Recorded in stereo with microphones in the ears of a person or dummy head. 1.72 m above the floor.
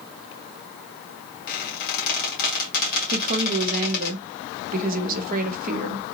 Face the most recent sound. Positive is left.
turn(degrees=-50)  # may be behind; listen again after turning